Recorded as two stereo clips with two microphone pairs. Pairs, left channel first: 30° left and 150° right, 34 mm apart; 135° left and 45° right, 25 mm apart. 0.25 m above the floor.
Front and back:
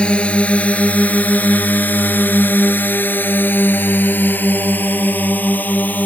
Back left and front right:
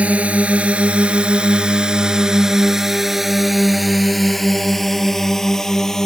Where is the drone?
30° right; by 6.1 s 60° left.